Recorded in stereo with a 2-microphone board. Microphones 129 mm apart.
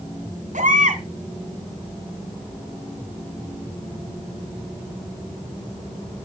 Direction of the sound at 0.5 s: 85° right.